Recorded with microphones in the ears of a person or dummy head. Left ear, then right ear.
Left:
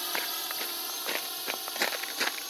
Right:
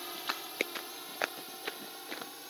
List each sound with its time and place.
0.0 s a drone: 35° left (ahead or behind); by 2.5 s 40° left (ahead or behind)